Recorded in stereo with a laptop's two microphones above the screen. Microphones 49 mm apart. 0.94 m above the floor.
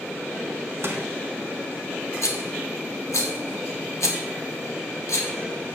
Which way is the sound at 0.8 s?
55° right (ahead or behind).